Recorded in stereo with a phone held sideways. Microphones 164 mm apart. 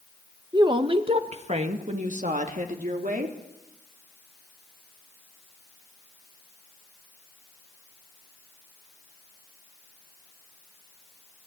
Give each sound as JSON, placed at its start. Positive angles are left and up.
{"t": 0.5, "sound": "a woman speaking", "side_deg": -25, "distance_m": 1.4}